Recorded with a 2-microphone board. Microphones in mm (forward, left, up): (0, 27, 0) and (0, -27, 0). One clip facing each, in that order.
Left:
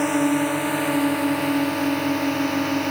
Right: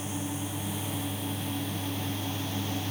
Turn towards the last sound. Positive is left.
turn(degrees=60)  # may be behind; listen again after turning